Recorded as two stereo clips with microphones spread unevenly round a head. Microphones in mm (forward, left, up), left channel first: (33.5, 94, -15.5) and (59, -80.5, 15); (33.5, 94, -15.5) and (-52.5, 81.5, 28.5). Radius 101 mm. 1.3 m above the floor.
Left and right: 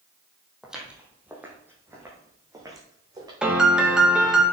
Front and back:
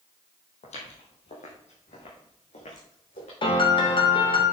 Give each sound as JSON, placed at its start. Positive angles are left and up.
{"t": 0.6, "sound": "footsteps", "azimuth_deg": 0, "distance_m": 2.5}
{"t": 3.4, "sound": "a piano", "azimuth_deg": 5, "distance_m": 2.0}